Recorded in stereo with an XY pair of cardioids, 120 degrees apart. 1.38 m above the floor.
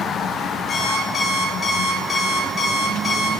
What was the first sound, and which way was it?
An alarm clock, 40° left.